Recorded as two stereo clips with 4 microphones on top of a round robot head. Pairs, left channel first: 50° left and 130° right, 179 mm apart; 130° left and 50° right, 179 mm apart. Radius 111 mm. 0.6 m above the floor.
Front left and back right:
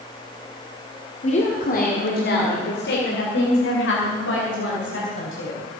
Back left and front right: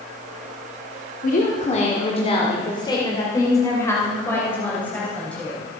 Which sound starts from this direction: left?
A woman speaking, at 1.2 s.